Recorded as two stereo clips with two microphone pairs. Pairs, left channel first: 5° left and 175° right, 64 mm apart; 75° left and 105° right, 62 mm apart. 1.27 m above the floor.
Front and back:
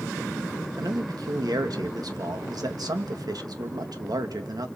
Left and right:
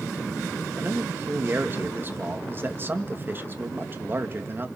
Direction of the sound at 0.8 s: 160° right.